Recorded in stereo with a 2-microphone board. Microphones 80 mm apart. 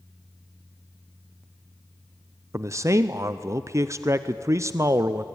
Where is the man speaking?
40° right (ahead or behind), 0.7 m.